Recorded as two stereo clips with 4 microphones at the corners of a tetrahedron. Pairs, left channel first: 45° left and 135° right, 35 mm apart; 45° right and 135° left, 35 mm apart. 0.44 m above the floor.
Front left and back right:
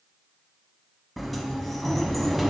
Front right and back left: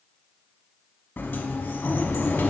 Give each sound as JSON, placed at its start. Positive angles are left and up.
{"t": 1.2, "sound": "a sliding door", "azimuth_deg": -45, "distance_m": 0.7}